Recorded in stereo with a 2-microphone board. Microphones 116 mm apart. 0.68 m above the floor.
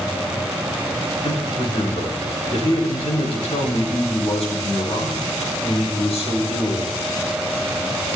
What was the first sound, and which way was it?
A man speaking, 70° left (ahead or behind).